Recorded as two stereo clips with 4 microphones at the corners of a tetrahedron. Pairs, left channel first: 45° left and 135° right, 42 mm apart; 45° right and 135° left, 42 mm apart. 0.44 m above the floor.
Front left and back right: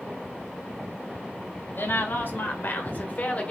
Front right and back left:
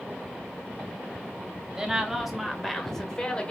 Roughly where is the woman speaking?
Ahead left.